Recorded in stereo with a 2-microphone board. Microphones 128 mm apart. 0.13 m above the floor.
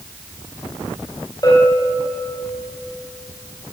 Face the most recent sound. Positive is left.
turn(degrees=30)  # may be behind; listen again after turning